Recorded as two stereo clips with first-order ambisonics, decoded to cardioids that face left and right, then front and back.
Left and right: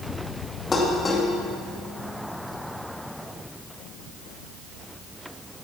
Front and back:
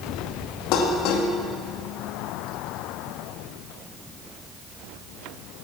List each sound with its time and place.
0.7 s dishes clattering: 20° left, 1.8 m